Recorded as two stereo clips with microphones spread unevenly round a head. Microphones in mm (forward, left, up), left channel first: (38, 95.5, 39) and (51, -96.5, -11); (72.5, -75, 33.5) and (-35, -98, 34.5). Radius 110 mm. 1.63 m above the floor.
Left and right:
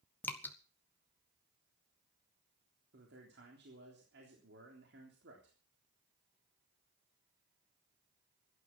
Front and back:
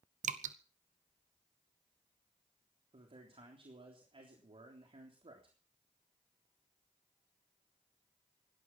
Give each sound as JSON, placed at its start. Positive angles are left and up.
{"t": 0.2, "sound": "dripping", "azimuth_deg": 180, "distance_m": 1.0}
{"t": 2.9, "sound": "a man speaking", "azimuth_deg": -130, "distance_m": 3.5}